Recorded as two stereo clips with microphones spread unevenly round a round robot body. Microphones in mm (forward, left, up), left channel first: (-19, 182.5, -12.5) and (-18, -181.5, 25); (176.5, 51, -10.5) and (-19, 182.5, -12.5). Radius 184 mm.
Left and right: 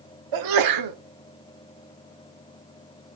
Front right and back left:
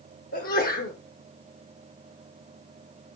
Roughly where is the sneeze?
Right.